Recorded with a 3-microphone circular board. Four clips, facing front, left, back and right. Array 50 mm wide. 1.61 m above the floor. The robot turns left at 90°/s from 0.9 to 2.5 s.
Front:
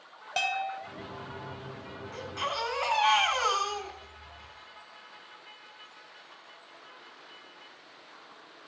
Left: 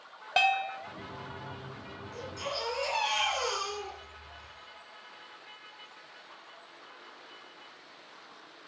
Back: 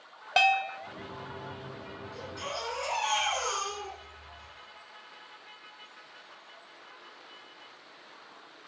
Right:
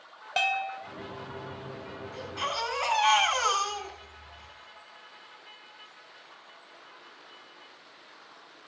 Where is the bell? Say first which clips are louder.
Left 2 dB, back 6 dB; 160° left, 1.5 m.